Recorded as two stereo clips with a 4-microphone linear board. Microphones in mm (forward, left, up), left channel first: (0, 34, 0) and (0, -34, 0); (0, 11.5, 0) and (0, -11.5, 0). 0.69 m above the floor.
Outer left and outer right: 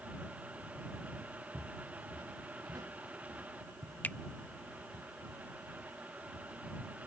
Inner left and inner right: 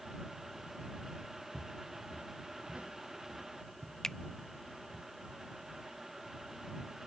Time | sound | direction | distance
1.5 | footsteps | 80° right | ?
4.0 | a finger snap | 25° left (ahead or behind) | ?